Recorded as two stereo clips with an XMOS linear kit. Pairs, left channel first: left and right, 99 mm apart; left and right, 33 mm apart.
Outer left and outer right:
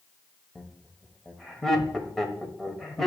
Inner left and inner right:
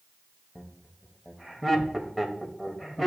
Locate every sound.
0.6 s laughter: 5° left (ahead or behind), 1.3 m